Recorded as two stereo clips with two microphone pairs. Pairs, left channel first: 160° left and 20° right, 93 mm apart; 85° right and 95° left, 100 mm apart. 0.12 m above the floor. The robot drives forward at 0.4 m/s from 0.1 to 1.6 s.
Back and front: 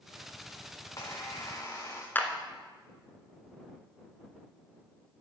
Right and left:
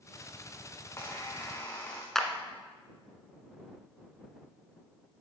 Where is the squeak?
145° right, 2 m; by 2.0 s 150° right, 2.5 m.